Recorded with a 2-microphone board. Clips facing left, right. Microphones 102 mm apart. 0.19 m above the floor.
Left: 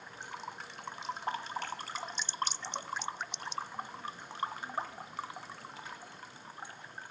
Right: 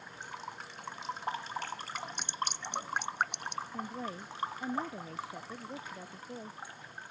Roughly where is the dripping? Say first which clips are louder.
Left 1 dB; right.